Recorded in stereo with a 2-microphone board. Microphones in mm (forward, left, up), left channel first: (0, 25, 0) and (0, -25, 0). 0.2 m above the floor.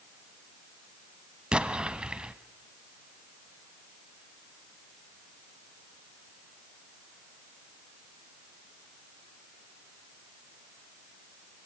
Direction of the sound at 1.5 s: 20° right (ahead or behind).